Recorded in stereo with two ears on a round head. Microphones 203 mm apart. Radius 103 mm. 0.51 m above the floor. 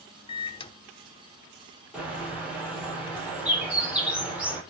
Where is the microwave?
25° left (ahead or behind), 0.9 m.